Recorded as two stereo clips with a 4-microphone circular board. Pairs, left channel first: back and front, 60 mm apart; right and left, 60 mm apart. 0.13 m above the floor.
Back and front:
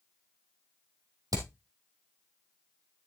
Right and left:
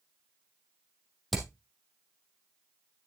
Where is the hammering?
Straight ahead, 3 m.